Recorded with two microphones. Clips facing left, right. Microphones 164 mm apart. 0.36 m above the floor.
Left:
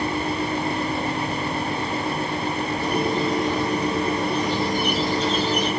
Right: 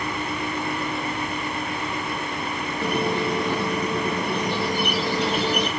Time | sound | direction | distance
2.8 | a squeak | 65° right (ahead or behind) | 5.5 m